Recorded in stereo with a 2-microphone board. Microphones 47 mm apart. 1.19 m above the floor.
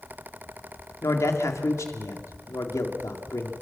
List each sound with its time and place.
1.0 s a man speaking: 80° left, 2.5 m